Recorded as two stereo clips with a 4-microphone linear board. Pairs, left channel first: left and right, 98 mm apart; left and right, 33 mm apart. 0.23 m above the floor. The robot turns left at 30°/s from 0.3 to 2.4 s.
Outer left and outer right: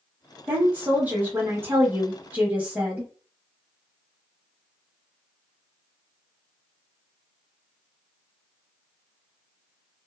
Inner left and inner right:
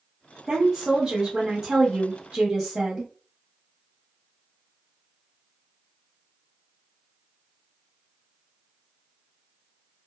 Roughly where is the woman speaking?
Centre.